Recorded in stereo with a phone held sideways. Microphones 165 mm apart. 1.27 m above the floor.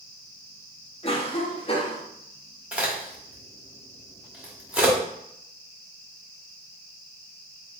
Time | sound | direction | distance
1.0 | a cough | 35° left (ahead or behind) | 1.0 m
2.7 | a crack | 5° right (ahead or behind) | 1.3 m